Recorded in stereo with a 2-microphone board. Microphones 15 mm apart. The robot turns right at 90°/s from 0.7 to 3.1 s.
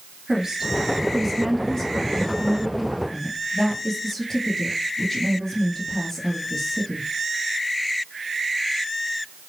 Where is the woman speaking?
60° right, 2.5 m; by 7.1 s 160° left, 2.5 m.